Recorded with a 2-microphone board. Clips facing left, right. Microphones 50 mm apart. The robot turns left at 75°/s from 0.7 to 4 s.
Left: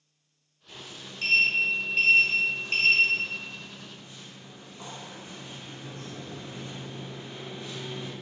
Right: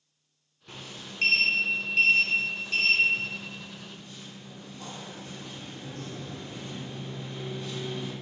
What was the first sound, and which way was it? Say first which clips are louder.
A sliding door: right 1 dB; 85° right.